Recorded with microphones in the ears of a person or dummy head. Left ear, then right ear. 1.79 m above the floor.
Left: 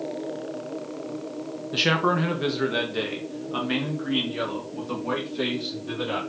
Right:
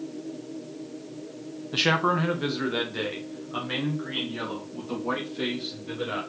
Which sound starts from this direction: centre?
A man speaking, at 1.7 s.